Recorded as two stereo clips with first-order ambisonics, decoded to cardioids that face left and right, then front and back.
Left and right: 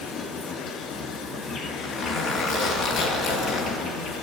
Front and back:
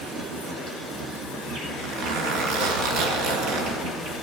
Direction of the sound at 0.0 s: 150° left.